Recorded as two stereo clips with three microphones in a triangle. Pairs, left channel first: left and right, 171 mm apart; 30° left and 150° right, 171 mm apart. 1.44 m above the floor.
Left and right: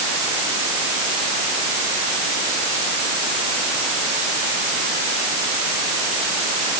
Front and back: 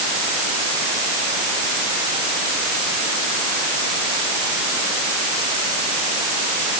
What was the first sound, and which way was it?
Only background noise.